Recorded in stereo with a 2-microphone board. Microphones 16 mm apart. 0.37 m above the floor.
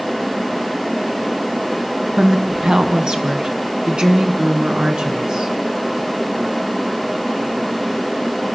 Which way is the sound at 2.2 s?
65° right (ahead or behind).